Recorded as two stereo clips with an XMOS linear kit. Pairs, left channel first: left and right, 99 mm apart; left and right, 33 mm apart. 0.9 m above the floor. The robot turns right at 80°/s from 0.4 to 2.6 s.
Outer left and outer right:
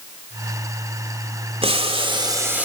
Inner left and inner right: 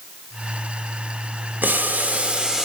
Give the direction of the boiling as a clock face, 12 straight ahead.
3 o'clock.